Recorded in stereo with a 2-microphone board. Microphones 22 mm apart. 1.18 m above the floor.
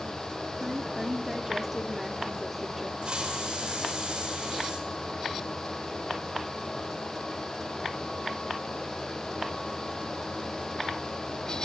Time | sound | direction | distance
0.6 | a woman speaking | 10° right (ahead or behind) | 2.5 m
3.0 | a hiss | 45° right (ahead or behind) | 5.5 m